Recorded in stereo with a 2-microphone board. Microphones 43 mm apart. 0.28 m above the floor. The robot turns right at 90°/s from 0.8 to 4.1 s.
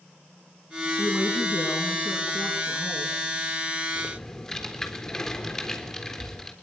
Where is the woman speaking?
30° left, 4.5 m; by 3.2 s 130° right, 4.5 m.